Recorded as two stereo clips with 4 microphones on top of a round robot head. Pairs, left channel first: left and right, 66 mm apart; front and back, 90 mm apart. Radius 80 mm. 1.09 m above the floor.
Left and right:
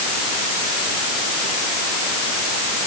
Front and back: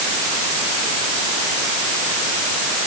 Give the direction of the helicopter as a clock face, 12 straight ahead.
No helicopter in this recording.